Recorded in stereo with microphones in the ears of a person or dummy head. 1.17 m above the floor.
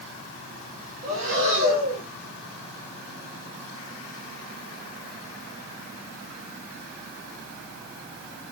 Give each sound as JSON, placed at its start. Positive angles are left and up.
{"t": 1.0, "sound": "breathing", "side_deg": -45, "distance_m": 1.8}